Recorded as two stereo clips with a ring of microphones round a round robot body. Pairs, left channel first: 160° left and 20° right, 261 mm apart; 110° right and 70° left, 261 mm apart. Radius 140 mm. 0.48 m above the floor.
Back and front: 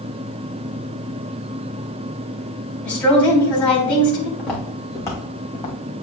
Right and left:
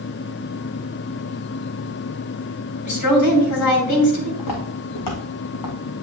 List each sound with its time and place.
2.9 s a woman speaking: 120° right, 2.5 m
4.4 s footsteps: 115° right, 2.5 m; by 5.8 s 135° right, 1.8 m